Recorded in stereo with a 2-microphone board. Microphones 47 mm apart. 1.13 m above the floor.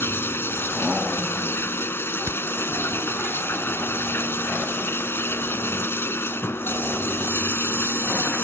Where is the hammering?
65° right (ahead or behind).